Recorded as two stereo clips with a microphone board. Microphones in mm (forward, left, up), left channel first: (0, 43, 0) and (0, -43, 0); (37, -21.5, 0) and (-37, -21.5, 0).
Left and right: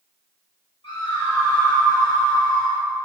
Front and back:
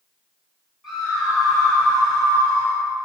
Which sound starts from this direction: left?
A scream, at 0.8 s.